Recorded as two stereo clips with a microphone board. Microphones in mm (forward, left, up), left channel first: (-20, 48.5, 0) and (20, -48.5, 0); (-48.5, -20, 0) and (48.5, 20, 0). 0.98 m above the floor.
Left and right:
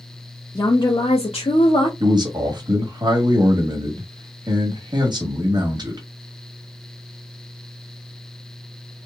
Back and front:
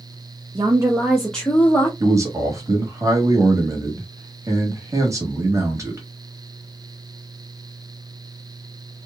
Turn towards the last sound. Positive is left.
turn(degrees=-30)